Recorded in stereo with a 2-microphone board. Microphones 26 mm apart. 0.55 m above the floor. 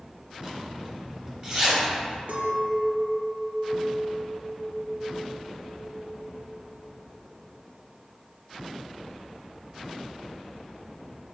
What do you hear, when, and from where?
0.4 s a zipper: 25° right (ahead or behind), 1.0 m
2.3 s a clink: 70° right (ahead or behind), 0.7 m